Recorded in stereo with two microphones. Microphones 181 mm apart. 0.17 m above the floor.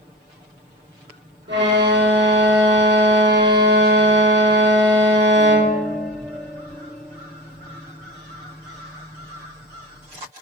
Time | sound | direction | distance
1.5 | a violin | 80° right | 2.5 m